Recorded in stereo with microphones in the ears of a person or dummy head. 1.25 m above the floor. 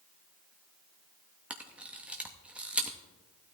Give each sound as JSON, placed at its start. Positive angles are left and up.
{"t": 1.5, "sound": "a camera shutter", "side_deg": 0, "distance_m": 0.6}